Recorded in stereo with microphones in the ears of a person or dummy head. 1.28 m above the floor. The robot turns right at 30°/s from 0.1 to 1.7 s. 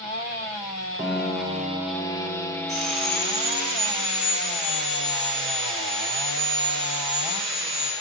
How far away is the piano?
About 0.6 m.